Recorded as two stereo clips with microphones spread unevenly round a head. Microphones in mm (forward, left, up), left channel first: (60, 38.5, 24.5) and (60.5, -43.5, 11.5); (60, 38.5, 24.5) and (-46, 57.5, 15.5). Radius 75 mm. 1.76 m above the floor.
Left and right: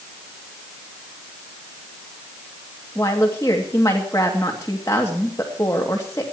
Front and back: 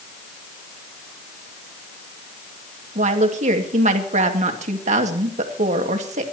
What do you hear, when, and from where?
3.0 s a woman speaking: 160° left, 2 m